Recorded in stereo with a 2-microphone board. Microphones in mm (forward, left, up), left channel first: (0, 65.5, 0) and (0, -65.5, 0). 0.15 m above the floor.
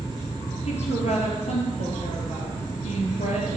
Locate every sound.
0.7 s a woman speaking: 60° left (ahead or behind), 3 m